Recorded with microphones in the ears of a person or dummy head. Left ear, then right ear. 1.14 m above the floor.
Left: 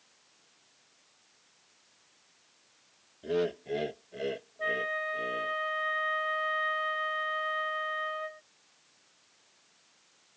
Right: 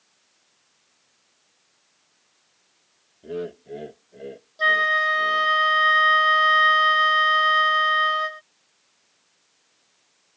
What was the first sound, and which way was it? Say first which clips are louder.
Laughter: left 2 dB; 25° left (ahead or behind).